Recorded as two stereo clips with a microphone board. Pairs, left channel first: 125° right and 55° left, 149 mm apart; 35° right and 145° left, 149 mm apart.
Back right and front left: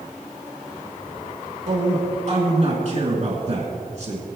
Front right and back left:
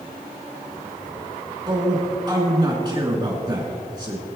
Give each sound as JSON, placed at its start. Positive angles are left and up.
{"t": 1.7, "sound": "a man speaking", "azimuth_deg": 90, "distance_m": 2.5}